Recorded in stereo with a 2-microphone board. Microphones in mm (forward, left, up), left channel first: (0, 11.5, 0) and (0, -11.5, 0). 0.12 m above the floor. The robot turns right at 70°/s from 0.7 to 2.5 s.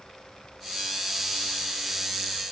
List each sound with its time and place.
Only background noise.